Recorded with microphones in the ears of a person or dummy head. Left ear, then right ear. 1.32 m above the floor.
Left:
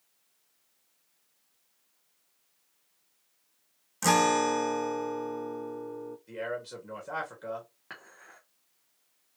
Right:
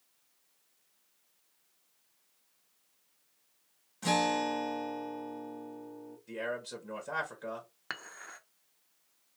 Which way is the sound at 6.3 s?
5° right (ahead or behind).